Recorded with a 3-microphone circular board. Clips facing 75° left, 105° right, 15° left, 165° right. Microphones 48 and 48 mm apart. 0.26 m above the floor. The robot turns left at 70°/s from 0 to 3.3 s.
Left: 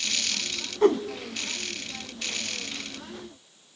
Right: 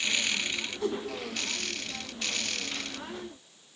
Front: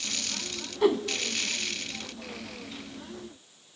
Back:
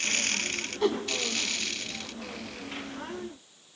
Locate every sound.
0.8 s a whoosh: 100° left, 0.8 m; by 1.0 s 85° left, 0.8 m